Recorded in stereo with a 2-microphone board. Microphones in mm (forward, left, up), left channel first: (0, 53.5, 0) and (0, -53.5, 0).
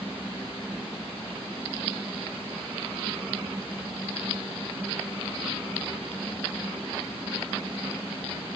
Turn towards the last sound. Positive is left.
No sound to turn to.